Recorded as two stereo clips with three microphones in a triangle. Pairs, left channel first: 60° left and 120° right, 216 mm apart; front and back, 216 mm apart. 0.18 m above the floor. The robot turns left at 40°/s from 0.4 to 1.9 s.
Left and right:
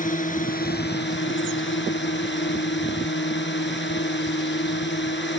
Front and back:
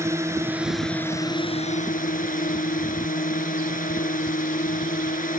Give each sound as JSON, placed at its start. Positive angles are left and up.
{"t": 0.0, "sound": "a drone", "azimuth_deg": 105}